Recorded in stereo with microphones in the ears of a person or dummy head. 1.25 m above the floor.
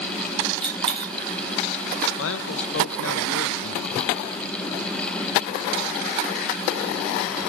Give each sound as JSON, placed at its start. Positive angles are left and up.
{"t": 0.6, "sound": "a dropped coin", "side_deg": -30, "distance_m": 1.1}
{"t": 2.2, "sound": "a man speaking", "side_deg": 70, "distance_m": 0.8}